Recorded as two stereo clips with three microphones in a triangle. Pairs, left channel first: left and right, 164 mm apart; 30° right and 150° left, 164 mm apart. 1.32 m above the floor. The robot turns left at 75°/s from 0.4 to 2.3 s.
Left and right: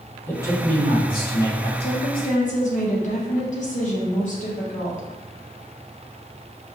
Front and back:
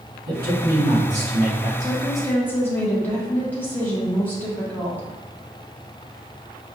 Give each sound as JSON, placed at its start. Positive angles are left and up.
{"t": 0.3, "sound": "a man speaking", "azimuth_deg": 165, "distance_m": 1.4}
{"t": 1.8, "sound": "a woman speaking", "azimuth_deg": 85, "distance_m": 1.1}